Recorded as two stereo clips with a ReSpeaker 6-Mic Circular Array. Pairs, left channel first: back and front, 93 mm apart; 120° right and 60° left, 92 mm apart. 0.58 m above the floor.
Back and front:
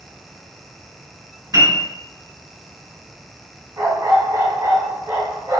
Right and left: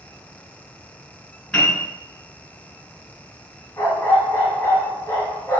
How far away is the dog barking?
About 1.4 m.